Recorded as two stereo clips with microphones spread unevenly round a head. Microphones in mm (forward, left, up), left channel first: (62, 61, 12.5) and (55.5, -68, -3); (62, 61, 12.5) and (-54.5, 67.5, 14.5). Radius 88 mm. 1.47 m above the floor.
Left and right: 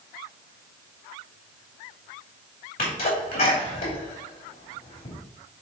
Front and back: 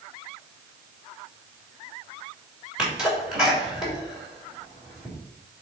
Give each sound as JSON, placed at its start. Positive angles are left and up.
{"t": 2.8, "sound": "a sneeze", "azimuth_deg": 95, "distance_m": 2.5}